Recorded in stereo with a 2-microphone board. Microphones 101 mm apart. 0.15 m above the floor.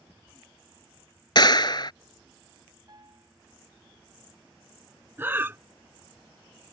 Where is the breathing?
20° right (ahead or behind).